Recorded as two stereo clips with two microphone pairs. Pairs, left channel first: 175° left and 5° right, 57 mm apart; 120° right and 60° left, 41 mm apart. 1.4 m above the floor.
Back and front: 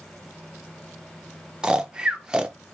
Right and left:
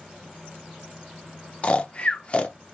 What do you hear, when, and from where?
1.6 s snoring: 70° right, 0.5 m